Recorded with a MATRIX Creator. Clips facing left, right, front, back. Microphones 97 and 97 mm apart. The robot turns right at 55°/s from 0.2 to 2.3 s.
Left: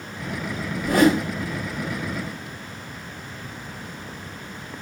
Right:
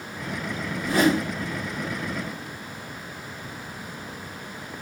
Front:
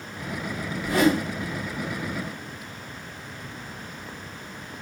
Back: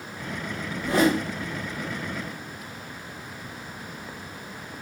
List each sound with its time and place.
0.8 s a whoosh: 115° left, 1.1 m; by 1.3 s 140° left, 1.1 m